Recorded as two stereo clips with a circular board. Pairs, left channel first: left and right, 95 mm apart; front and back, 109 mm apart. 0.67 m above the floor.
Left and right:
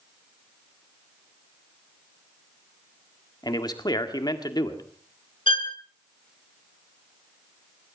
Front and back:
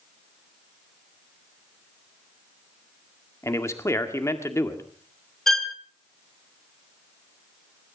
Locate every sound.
3.4 s a man speaking: 60° left, 1.8 m
5.5 s a violin: 85° left, 1.5 m